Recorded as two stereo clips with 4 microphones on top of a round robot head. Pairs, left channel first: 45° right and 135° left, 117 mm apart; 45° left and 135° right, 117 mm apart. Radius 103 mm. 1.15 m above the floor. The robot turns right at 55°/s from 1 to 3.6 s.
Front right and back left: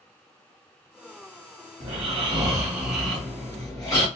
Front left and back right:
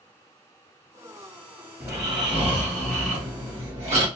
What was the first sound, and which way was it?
Snoring, 155° left.